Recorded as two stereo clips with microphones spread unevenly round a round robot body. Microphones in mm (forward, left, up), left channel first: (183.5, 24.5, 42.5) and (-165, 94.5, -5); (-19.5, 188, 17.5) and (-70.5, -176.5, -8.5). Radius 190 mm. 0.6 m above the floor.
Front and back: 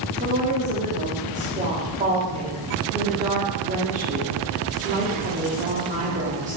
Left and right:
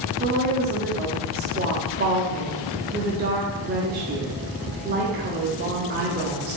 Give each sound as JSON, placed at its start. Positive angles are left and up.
{"t": 0.2, "sound": "a woman speaking", "azimuth_deg": -140, "distance_m": 1.2}